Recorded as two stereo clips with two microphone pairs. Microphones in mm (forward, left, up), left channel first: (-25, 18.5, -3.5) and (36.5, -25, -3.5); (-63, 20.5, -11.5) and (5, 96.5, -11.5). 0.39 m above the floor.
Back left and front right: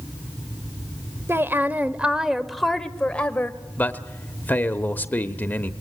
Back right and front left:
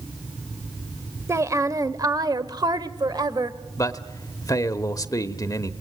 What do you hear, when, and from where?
1.3 s a woman speaking: 5° left, 1.4 m; by 3.6 s 85° left, 1.6 m
3.8 s a man speaking: 165° right, 1.2 m